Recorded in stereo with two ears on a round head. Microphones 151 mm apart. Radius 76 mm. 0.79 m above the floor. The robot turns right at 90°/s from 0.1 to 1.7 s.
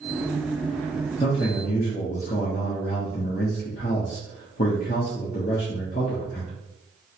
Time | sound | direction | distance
1.2 | a man speaking | 45° left | 1.0 m